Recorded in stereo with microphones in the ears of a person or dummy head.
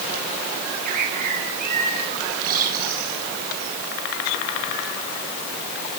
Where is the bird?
50° right (ahead or behind), 6.5 m.